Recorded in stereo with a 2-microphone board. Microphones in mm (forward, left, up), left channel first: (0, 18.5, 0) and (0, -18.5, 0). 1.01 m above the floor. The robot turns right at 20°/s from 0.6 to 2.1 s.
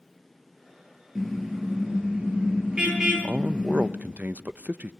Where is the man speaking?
50° right (ahead or behind), 0.8 m.